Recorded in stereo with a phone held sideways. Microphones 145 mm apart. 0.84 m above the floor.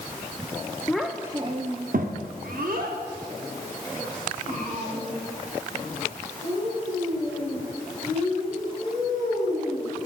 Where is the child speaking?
5° left (ahead or behind), 0.6 m; by 9.9 s 70° right (ahead or behind), 6.5 m.